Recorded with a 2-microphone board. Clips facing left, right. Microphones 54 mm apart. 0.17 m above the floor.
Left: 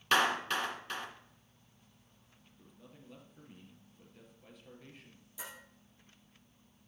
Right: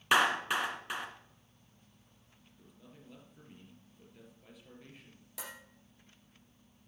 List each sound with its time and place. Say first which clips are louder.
0.1 s a clap: right 2 dB; 15° right (ahead or behind), 1.7 m
2.6 s a man speaking: even; centre (ahead or behind), 3.5 m
5.4 s dishes clattering: right 1 dB; 70° right (ahead or behind), 4 m